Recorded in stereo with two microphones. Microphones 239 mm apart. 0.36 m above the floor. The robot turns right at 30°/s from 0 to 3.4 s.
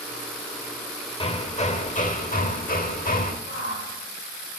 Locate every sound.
1.2 s hammering: 40° left, 0.9 m; by 3.4 s 105° left, 0.9 m
3.5 s a shout: 75° left (ahead or behind), 6.5 m